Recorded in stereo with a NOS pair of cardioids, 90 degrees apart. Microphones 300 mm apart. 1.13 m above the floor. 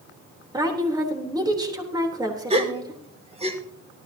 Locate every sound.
0.5 s a woman speaking: 15° right, 3.5 m
2.5 s a gasp: 20° right, 1.9 m